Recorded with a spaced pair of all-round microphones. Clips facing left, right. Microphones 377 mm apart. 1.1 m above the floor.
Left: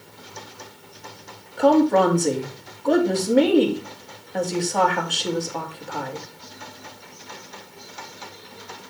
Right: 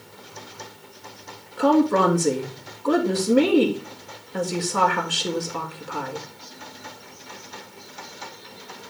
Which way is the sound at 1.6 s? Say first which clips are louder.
Left 2 dB; 15° right (ahead or behind).